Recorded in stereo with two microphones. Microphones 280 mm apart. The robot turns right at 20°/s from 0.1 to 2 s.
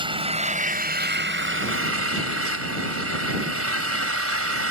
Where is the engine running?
160° right; by 4.7 s 125° right.